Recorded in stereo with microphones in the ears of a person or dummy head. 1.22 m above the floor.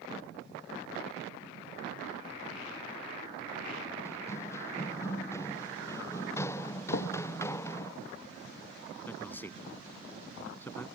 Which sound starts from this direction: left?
Knocking, at 6.9 s.